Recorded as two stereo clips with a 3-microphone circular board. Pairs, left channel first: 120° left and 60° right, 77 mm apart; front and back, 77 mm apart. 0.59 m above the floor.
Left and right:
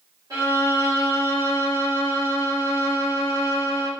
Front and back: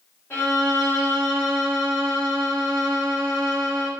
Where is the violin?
60° right, 1.3 m.